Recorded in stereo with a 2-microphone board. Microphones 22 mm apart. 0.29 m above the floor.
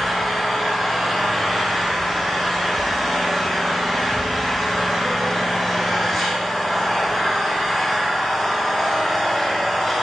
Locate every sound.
0.0 s an engine running: 15° left (ahead or behind), 3 m